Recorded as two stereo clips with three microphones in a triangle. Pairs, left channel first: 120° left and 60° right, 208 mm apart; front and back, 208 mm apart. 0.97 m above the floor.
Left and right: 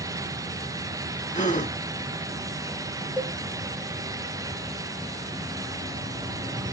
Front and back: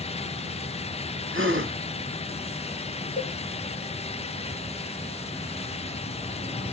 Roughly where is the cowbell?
Ahead left.